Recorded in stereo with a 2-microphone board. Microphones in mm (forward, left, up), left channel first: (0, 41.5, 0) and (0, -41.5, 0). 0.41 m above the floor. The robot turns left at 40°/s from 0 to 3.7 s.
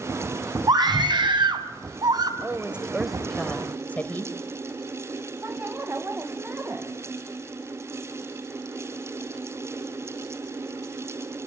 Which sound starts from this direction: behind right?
A woman speaking, at 2.4 s.